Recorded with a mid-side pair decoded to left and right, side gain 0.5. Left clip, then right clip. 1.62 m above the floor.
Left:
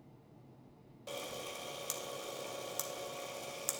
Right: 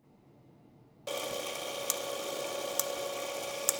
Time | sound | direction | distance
1.1 | a camera shutter | 50° right | 0.6 m